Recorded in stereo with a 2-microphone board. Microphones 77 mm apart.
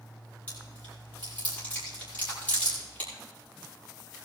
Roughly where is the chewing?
Left.